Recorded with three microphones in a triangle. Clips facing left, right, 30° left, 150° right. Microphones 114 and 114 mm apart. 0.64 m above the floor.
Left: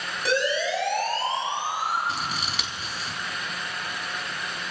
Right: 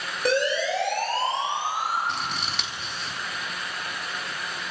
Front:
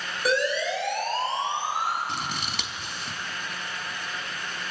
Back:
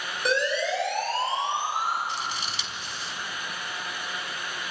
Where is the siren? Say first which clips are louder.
Right 1 dB, front 1 dB; 55° right, 6 m; by 2.0 s 75° right, 7 m.